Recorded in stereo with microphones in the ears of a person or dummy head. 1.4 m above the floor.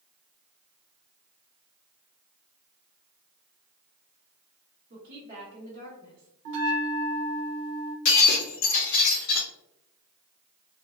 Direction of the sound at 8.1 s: 65° left (ahead or behind).